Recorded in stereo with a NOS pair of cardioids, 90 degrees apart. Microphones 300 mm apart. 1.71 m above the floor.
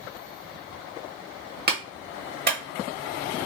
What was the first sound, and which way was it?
A clap, 30° right.